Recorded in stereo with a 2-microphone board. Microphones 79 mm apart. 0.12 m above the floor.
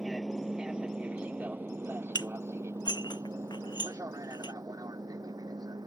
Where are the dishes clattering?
70° left (ahead or behind).